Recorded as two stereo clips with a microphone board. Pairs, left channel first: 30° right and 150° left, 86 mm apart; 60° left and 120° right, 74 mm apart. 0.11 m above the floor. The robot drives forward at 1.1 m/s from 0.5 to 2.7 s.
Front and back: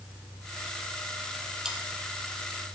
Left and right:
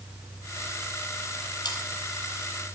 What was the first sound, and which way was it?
Sawing, 70° left.